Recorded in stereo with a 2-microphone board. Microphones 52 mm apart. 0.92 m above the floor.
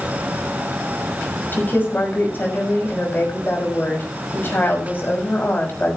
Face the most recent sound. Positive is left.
turn(degrees=40)  # may be behind; listen again after turning